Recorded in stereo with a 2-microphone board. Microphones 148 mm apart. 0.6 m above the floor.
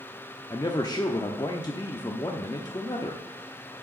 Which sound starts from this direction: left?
A man speaking, at 0.5 s.